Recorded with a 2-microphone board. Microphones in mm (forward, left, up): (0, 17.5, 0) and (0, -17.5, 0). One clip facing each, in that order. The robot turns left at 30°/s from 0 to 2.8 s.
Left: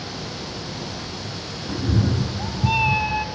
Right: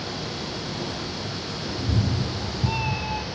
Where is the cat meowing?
110° left, 0.9 m; by 3.2 s 75° left, 0.9 m.